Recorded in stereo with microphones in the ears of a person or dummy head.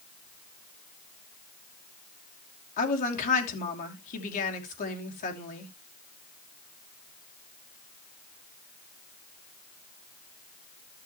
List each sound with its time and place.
2.8 s a woman speaking: 45° left (ahead or behind), 3 m